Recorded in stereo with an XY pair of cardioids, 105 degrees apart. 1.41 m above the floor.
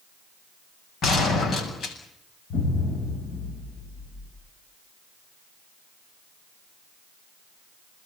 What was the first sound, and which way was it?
A gunshot, 60° left.